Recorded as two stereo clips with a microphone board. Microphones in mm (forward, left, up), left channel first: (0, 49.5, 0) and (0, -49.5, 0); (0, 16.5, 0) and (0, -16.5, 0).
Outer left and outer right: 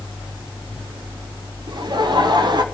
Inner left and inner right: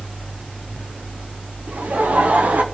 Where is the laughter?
45° right (ahead or behind), 0.8 m.